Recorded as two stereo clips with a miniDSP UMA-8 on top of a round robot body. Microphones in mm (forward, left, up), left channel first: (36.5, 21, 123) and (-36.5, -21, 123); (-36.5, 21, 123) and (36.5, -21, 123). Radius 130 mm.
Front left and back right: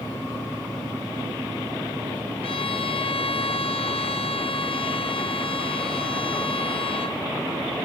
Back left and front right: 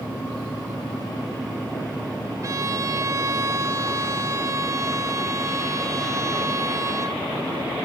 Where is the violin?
25° left, 1.3 m.